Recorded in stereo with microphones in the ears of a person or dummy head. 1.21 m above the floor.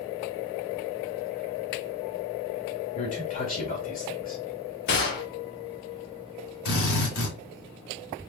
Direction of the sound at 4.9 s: 50° left (ahead or behind).